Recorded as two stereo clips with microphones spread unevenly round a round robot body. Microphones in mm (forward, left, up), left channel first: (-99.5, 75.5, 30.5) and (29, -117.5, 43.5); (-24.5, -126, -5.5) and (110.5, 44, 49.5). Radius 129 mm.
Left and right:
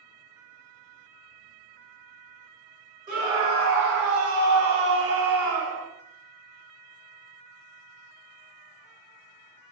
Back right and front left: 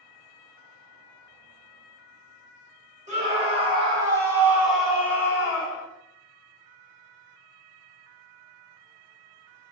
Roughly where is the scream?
Ahead.